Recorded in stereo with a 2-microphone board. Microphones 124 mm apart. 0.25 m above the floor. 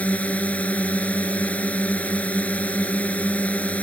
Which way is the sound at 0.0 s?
10° left (ahead or behind).